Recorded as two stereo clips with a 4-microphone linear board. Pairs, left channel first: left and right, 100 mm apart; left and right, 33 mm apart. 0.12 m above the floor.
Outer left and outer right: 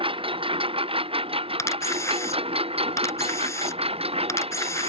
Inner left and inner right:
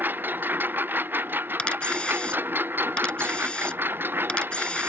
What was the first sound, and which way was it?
A lawn mower, 65° right (ahead or behind).